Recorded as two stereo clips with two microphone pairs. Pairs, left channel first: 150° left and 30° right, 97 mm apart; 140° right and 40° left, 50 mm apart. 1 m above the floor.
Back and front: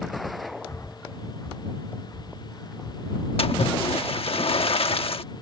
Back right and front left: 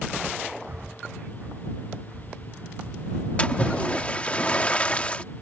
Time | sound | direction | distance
0.7 | breathing | 90° left | ?
3.4 | a splash | 155° left | ?